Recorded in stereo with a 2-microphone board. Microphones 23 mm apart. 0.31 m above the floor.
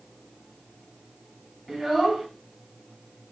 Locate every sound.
1.7 s a child speaking: 10° right (ahead or behind), 1.7 m